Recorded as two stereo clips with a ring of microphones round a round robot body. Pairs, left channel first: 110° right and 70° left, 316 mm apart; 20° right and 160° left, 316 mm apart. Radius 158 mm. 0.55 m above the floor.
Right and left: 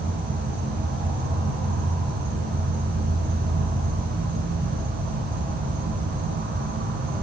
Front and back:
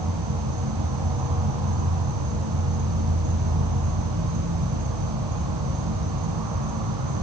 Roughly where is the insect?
Behind left.